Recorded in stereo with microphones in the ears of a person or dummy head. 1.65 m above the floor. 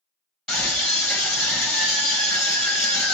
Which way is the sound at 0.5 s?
Centre (ahead or behind).